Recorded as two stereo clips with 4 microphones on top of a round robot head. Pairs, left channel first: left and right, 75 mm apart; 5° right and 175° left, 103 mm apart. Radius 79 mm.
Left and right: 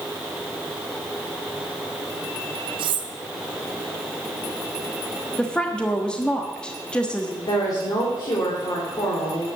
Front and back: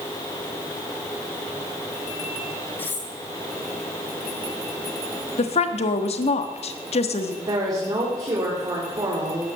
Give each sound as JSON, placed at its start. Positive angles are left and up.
{"t": 2.8, "sound": "cutlery clinking", "azimuth_deg": -80, "distance_m": 1.2}
{"t": 5.4, "sound": "a woman speaking", "azimuth_deg": 10, "distance_m": 1.3}
{"t": 7.5, "sound": "a woman speaking", "azimuth_deg": 120, "distance_m": 3.5}